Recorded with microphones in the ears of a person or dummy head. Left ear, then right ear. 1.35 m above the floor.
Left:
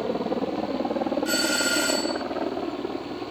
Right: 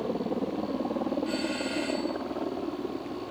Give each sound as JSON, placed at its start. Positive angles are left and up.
{"t": 0.0, "sound": "a helicopter", "side_deg": 45}
{"t": 1.2, "sound": "a doorbell", "side_deg": 50}